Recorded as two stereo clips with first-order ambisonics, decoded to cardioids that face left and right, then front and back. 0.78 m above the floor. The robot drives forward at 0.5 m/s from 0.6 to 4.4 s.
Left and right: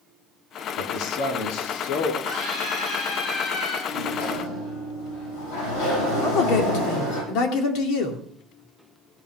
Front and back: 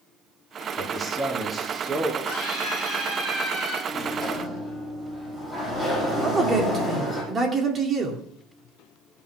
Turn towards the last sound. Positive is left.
turn(degrees=110)